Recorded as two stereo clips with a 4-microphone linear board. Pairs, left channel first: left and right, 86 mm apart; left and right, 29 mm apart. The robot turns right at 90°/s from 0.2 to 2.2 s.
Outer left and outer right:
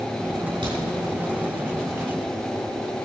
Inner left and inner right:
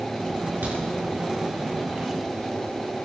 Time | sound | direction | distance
0.6 | a crack | 65° right (ahead or behind) | 6 m